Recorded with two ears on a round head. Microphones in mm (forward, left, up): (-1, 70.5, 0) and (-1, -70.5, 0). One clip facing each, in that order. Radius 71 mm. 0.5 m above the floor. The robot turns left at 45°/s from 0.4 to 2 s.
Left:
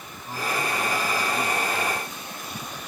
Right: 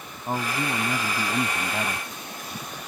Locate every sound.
0.3 s a man speaking: 40° right; by 2.1 s 110° right